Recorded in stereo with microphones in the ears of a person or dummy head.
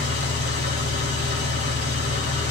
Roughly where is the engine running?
Right.